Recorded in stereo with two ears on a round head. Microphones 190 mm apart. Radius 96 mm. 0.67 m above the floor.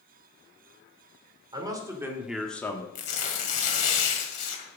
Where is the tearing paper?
35° left (ahead or behind), 2.0 m.